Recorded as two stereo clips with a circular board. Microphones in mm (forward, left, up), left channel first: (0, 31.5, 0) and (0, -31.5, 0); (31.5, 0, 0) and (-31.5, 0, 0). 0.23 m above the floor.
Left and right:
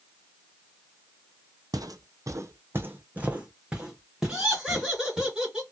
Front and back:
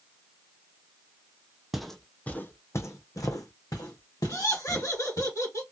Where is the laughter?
15° right, 2 m.